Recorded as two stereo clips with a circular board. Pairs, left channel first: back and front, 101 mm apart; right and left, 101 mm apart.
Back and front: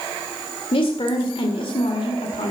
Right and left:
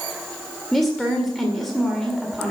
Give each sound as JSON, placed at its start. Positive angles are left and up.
{"t": 0.7, "sound": "a woman speaking", "azimuth_deg": 180, "distance_m": 1.8}